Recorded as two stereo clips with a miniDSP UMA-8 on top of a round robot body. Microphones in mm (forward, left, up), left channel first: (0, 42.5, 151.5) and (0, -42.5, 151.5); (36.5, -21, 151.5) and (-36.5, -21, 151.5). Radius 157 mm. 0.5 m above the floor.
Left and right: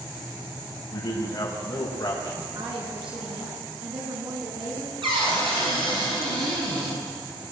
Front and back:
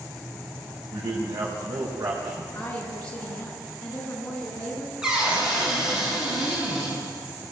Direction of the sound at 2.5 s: 70° right.